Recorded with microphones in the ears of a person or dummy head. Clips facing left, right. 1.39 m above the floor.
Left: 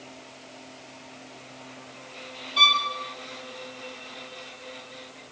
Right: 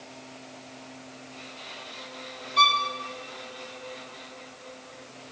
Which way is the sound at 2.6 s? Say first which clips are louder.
Right 3 dB; 5° left (ahead or behind).